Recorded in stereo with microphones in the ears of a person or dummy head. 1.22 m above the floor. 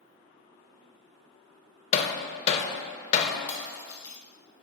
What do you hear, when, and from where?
1.9 s hammering: 40° left (ahead or behind), 0.5 m
3.5 s breaking glass: 20° left (ahead or behind), 0.7 m